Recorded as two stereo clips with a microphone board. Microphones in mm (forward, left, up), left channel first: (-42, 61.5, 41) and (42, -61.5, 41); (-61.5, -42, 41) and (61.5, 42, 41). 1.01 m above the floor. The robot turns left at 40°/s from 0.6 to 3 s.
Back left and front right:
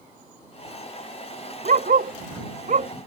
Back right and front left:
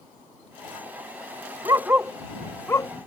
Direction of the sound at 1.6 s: 30° right.